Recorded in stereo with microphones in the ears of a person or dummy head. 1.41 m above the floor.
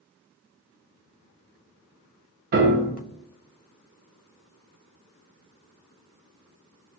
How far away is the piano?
About 0.6 m.